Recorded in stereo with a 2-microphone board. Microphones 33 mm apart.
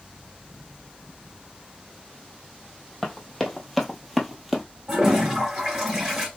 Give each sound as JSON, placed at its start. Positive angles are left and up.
{"t": 3.0, "sound": "running footsteps", "side_deg": 10, "distance_m": 1.4}
{"t": 4.9, "sound": "a toilet flushing", "side_deg": -20, "distance_m": 2.0}